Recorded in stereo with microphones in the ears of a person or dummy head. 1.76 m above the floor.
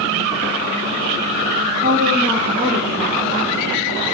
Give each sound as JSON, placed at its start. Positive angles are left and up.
{"t": 1.8, "sound": "a woman speaking", "side_deg": -40, "distance_m": 1.2}